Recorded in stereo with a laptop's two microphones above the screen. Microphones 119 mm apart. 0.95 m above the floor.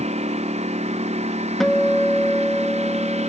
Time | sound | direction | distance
0.0 | a lawn mower | 70° right (ahead or behind) | ?
1.6 | a guitar | centre (ahead or behind) | ?